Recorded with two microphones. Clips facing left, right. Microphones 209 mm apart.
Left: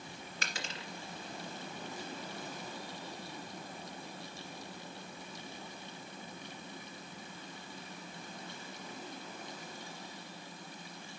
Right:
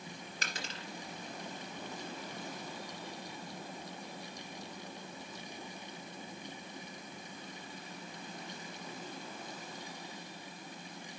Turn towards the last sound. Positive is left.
turn(degrees=-35)  # may be behind; listen again after turning